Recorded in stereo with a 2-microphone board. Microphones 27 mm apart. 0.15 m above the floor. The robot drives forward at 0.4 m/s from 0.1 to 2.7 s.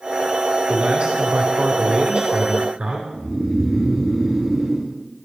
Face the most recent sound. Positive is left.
turn(degrees=-15)  # may be behind; listen again after turning